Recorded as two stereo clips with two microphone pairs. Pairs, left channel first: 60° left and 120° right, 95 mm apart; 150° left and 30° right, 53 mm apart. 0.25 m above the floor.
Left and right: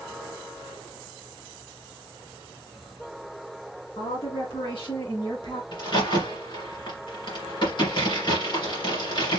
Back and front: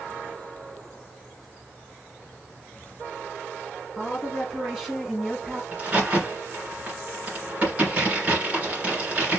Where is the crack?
35° left, 2.5 m.